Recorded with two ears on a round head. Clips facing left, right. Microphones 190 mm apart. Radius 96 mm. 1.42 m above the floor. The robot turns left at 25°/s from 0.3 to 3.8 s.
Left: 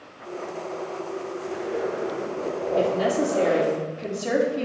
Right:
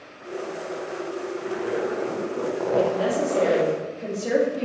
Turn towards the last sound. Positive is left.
turn(degrees=0)  # may be behind; listen again after turning